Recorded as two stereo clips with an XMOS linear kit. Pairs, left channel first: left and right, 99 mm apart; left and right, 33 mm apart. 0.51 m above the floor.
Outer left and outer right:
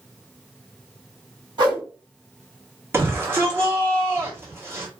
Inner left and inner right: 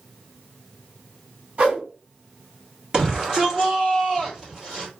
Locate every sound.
1.6 s a whoosh: 50° right (ahead or behind), 2 m
2.9 s a shout: 25° right (ahead or behind), 1.4 m